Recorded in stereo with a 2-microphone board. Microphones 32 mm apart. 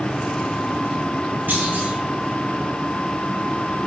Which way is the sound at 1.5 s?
75° right (ahead or behind).